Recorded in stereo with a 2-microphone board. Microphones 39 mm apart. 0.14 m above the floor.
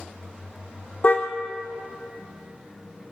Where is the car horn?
35° left (ahead or behind), 3 m.